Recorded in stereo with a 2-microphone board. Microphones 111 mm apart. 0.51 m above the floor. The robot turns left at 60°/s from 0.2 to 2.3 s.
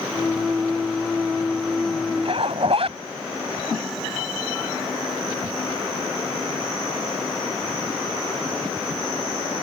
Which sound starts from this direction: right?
A zipper, at 2.2 s.